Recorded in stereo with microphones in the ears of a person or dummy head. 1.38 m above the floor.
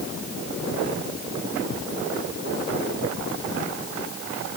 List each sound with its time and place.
Only background noise.